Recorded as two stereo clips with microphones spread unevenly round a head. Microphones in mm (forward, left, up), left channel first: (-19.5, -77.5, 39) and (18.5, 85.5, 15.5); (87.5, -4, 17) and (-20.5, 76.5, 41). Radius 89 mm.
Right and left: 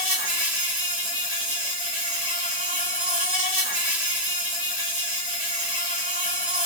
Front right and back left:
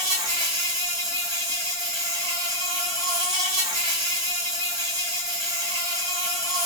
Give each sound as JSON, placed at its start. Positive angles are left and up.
{"t": 0.0, "sound": "an insect", "azimuth_deg": 165, "distance_m": 1.6}